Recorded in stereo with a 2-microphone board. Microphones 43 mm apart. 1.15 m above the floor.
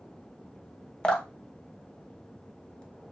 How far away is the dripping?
About 0.5 m.